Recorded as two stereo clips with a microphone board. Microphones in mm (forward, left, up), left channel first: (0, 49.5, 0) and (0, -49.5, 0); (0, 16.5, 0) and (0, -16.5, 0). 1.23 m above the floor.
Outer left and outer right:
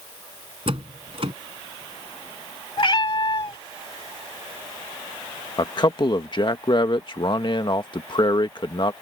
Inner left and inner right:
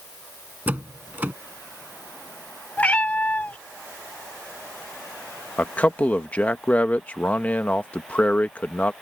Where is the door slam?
65° right (ahead or behind).